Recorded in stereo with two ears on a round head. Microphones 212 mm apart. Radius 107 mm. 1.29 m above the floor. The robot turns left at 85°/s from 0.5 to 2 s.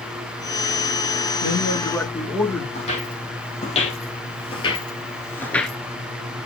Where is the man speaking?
55° left, 1.7 m; by 2.6 s 5° left, 1.7 m.